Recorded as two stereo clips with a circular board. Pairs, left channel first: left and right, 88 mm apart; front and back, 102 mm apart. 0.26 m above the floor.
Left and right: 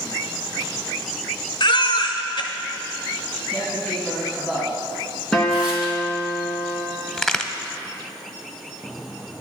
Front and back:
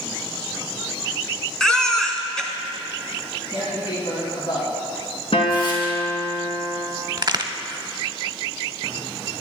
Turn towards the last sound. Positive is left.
turn(degrees=175)